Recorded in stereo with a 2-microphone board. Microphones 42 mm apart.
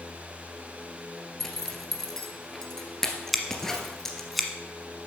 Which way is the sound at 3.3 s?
Centre (ahead or behind).